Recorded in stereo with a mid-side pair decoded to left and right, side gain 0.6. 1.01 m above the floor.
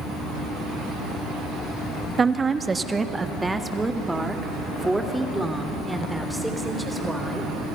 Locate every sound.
2.2 s a woman speaking: 25° right, 1.1 m; by 7.5 s straight ahead, 4 m